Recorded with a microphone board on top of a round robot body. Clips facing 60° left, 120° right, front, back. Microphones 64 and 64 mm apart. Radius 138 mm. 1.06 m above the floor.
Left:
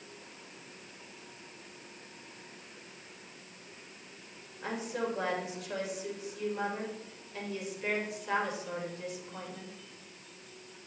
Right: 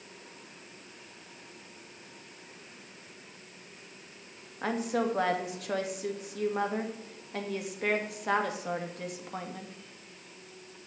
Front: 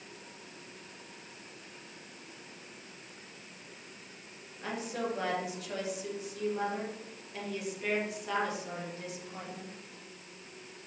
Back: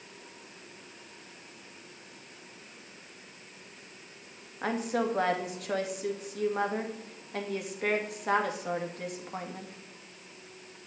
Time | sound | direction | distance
4.6 | a woman speaking | 150° right | 2 m